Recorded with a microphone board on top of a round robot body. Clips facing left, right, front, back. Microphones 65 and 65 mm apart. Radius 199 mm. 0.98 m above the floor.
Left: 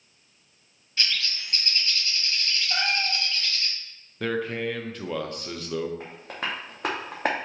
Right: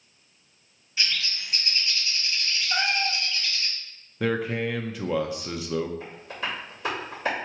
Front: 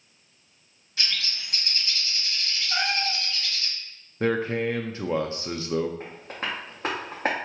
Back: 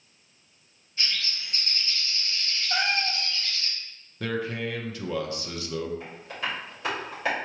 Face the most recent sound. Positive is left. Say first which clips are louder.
# even, even
turn(degrees=55)